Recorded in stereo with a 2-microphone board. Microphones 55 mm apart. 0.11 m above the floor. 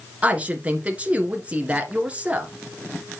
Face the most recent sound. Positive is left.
turn(degrees=-25)  # may be behind; listen again after turning